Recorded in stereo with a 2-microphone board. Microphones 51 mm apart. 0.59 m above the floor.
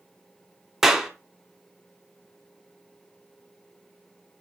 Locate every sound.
0.8 s a clap: 10° right (ahead or behind), 1.2 m